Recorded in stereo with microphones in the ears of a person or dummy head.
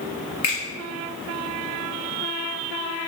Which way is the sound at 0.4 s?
35° left (ahead or behind).